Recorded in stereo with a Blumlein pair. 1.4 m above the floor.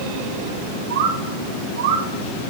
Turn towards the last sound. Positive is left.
turn(degrees=-60)